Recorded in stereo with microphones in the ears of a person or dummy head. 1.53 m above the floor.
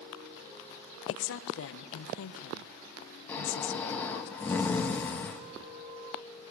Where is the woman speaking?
80° left, 1.3 m.